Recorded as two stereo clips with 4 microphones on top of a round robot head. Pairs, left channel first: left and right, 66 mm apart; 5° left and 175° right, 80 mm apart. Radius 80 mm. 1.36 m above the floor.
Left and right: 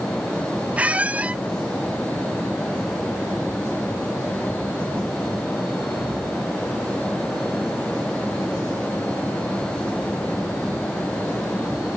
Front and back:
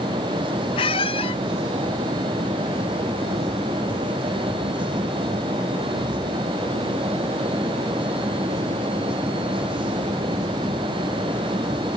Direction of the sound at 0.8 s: 20° right.